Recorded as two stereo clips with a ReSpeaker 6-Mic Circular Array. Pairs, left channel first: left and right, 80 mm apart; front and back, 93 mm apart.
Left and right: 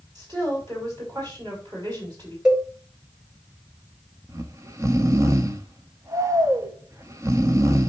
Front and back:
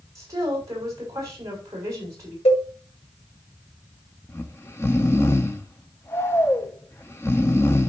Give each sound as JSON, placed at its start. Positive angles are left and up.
{"t": 0.1, "sound": "a woman speaking", "azimuth_deg": -130, "distance_m": 6.0}
{"t": 2.5, "sound": "a cowbell", "azimuth_deg": -5, "distance_m": 2.5}
{"t": 4.3, "sound": "snoring", "azimuth_deg": -55, "distance_m": 0.9}